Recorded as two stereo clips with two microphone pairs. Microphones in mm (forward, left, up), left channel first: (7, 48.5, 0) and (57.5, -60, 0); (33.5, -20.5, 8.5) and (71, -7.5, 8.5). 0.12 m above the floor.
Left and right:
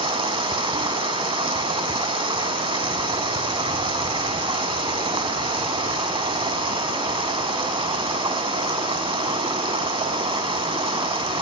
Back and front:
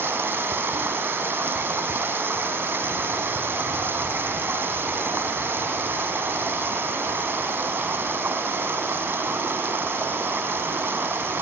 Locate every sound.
0.0 s running water: 20° right, 4.5 m